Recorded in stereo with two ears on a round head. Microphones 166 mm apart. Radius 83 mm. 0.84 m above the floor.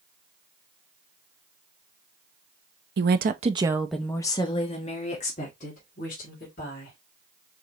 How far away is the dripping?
No dripping in this recording.